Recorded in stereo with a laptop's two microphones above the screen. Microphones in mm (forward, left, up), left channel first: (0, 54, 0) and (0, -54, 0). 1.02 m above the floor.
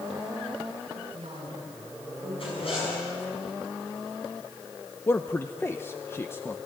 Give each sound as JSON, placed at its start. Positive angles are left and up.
{"t": 0.9, "sound": "a woman speaking", "side_deg": -60, "distance_m": 9.5}
{"t": 2.4, "sound": "a zipper", "side_deg": 60, "distance_m": 6.5}
{"t": 5.1, "sound": "a man speaking", "side_deg": 20, "distance_m": 0.7}